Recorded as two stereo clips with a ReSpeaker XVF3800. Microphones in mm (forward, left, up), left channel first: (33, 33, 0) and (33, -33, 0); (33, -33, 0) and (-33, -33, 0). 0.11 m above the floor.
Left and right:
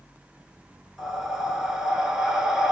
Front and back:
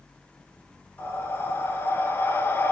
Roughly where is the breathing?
Ahead.